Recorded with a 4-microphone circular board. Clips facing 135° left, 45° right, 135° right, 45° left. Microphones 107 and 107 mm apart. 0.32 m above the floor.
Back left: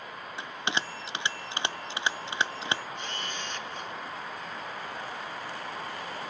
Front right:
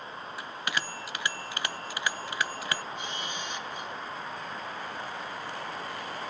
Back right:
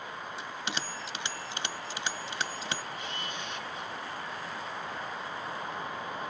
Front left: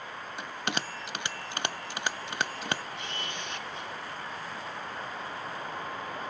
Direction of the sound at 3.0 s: 30° left.